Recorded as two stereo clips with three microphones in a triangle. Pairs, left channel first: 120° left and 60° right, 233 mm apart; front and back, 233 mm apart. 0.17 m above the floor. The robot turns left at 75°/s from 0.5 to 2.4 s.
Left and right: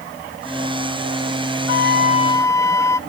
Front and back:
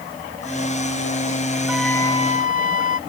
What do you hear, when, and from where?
1.7 s a flute: 100° left; by 3.0 s 45° left